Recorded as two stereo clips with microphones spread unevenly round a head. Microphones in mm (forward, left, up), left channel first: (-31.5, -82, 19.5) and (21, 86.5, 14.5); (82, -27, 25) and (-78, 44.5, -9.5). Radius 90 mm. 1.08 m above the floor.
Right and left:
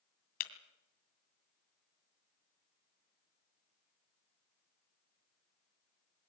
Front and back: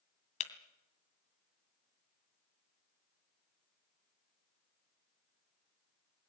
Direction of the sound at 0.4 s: 70° right.